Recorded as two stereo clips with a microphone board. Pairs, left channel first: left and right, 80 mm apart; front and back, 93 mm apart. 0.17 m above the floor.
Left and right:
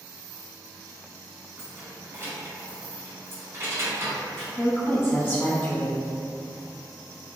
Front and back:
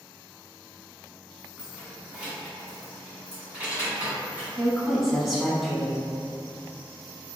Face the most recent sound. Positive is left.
turn(degrees=90)